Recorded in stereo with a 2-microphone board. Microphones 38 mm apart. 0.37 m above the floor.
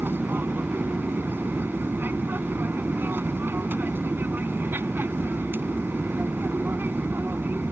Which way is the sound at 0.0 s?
60° right (ahead or behind).